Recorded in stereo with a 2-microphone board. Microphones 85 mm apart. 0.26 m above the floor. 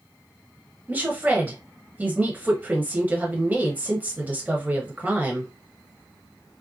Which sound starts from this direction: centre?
A woman speaking, at 0.9 s.